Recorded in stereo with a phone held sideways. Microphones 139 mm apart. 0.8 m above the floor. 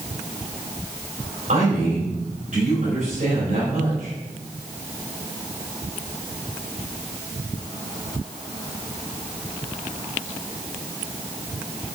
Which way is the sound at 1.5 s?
70° right (ahead or behind).